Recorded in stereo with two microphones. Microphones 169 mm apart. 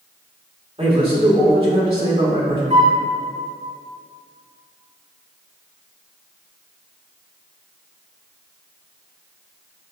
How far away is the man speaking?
About 1.8 m.